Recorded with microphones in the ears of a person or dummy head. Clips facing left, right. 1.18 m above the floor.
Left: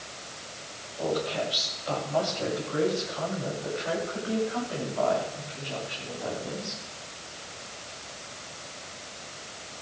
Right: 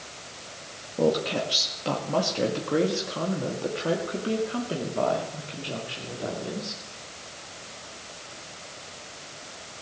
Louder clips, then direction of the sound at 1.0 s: Right 5 dB; 75° right (ahead or behind).